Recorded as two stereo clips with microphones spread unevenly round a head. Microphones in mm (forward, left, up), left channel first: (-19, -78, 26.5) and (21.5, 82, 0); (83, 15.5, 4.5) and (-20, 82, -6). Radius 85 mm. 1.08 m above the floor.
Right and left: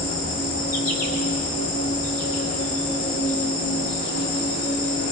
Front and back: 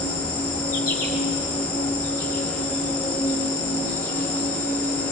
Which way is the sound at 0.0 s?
70° right.